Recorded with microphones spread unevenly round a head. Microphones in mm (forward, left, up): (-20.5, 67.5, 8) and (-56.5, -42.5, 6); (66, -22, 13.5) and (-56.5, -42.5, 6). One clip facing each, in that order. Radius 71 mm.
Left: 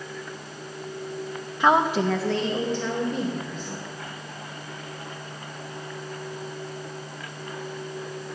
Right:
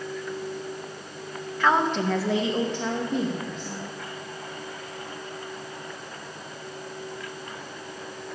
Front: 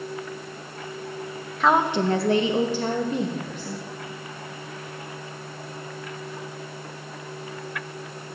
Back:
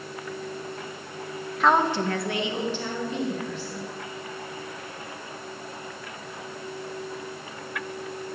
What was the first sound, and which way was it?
A woman speaking, 110° left.